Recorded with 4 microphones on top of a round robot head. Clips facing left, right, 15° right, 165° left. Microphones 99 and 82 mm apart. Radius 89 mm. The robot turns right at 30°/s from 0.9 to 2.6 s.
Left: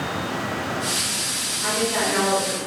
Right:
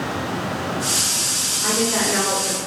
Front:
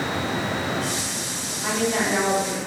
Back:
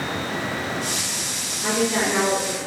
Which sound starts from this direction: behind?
A woman speaking, at 1.6 s.